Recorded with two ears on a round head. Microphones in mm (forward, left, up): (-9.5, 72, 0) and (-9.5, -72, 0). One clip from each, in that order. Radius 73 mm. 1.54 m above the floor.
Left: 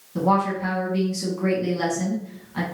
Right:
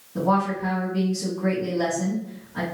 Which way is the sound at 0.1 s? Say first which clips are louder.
Left 1 dB; 80° left.